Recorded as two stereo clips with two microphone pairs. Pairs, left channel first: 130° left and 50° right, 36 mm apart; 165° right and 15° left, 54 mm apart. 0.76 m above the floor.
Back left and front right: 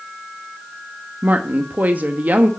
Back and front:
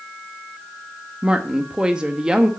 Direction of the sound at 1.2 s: 50° right.